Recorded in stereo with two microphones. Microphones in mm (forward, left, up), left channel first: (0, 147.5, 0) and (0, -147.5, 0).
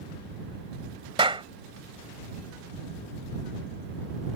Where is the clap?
15° right (ahead or behind).